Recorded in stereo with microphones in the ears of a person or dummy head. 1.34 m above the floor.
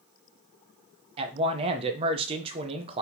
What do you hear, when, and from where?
1.2 s a man speaking: 25° right (ahead or behind), 0.8 m